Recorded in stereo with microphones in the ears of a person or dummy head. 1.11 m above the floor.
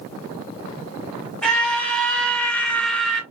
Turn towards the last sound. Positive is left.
turn(degrees=5)  # may be behind; listen again after turning